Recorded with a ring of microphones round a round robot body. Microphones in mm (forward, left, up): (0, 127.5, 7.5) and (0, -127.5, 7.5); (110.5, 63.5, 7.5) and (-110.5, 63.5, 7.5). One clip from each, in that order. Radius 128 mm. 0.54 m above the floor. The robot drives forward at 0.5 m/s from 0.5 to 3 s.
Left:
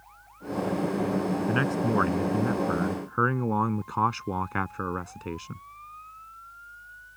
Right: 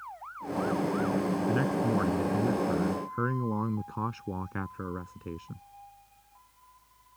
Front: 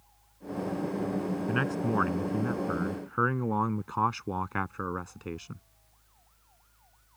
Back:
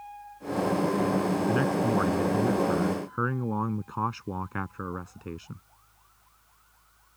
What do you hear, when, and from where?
1.5 s a man speaking: 40° left; by 5.6 s 45° left